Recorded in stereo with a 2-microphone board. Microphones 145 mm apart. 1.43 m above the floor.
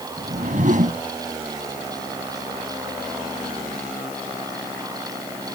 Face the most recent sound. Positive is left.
turn(degrees=-55)  # may be behind; listen again after turning